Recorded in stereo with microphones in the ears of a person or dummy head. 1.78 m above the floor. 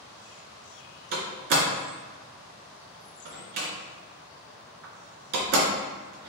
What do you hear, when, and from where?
1.1 s a door slam: 60° right (ahead or behind), 1.9 m